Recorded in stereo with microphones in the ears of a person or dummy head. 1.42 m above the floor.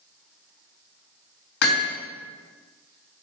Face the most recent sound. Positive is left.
turn(degrees=70)  # may be behind; listen again after turning